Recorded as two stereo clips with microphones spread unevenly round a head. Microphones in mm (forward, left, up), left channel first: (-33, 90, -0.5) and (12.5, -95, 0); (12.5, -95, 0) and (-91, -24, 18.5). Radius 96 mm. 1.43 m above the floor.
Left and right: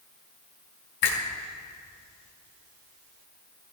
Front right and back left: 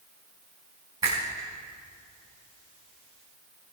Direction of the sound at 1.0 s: 70° left.